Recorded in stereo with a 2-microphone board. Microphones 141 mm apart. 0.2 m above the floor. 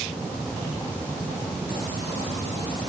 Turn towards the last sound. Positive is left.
No sound to turn to.